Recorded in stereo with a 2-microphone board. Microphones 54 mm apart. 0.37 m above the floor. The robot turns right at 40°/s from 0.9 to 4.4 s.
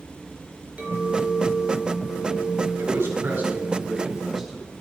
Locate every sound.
0.8 s a clink: 20° right, 3.5 m; by 3.8 s 95° left, 3.5 m
2.8 s a man speaking: 50° right (ahead or behind), 3.5 m; by 4.7 s 10° left (ahead or behind), 3.5 m